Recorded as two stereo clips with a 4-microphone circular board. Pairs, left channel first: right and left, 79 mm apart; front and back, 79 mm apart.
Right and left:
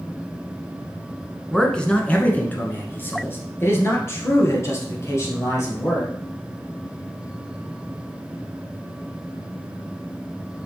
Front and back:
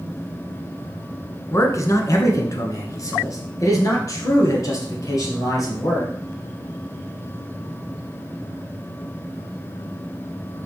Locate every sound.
1.5 s a man speaking: 10° right, 1.3 m; by 6.1 s 40° right, 3.5 m